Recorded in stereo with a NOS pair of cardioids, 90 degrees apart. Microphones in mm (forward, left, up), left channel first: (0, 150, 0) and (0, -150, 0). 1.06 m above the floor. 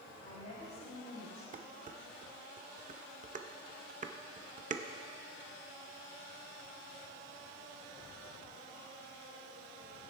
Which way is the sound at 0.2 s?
50° left.